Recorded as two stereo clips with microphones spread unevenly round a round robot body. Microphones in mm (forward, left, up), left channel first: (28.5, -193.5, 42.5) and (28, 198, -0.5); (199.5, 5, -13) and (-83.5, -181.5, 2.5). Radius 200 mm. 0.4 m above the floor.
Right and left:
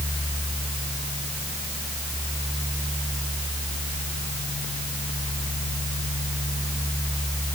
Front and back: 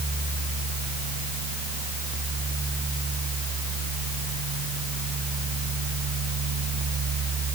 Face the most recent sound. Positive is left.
No sound to turn to.